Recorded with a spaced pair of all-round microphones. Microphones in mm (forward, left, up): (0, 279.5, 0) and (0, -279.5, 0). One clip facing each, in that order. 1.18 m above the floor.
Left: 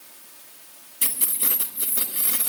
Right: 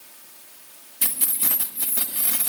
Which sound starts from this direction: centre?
Keys jangling, at 1.0 s.